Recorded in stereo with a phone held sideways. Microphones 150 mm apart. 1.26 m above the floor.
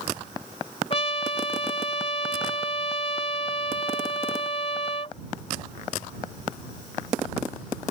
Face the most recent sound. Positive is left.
turn(degrees=45)  # may be behind; listen again after turning